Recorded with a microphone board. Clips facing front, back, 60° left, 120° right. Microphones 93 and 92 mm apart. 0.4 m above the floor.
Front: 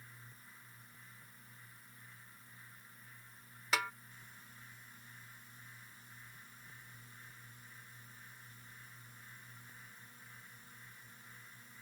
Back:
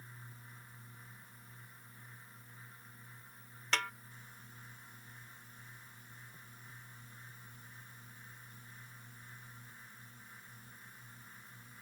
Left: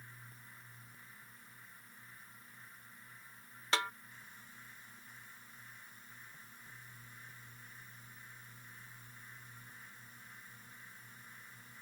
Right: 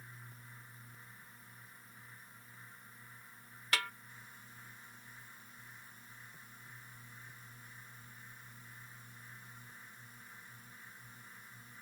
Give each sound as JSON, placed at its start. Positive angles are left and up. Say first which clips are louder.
{"t": 3.7, "sound": "a snare drum", "louder": "front 1 dB, left 2 dB", "azimuth_deg": 70}